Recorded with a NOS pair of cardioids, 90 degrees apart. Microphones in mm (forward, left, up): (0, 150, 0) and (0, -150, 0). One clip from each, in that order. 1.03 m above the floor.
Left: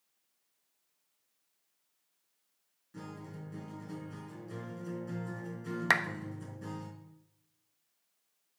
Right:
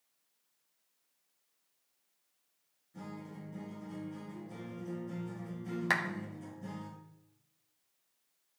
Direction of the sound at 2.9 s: 70° left.